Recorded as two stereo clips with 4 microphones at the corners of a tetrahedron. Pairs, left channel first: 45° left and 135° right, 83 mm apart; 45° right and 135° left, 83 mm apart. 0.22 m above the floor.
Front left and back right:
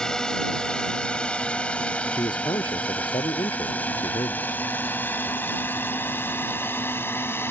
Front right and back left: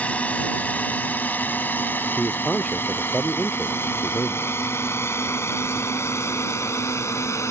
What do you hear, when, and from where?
0.0 s a drone: 20° right; by 7.5 s 5° right
2.2 s a man speaking: 30° left